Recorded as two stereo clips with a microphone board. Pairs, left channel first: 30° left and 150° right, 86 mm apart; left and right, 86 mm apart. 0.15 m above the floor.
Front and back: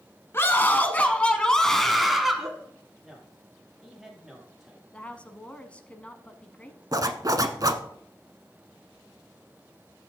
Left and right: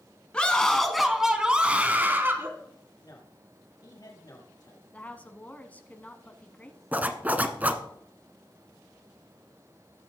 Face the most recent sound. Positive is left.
turn(degrees=-155)